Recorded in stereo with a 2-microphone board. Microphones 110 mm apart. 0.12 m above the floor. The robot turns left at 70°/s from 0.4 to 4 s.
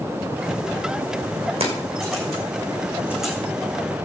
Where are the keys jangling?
60° right (ahead or behind), 5.5 m; by 3.3 s centre (ahead or behind), 5.5 m.